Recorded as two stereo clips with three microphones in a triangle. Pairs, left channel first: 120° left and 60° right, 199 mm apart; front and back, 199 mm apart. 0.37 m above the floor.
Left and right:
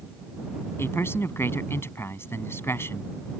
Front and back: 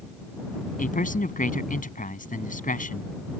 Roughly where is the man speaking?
Ahead left.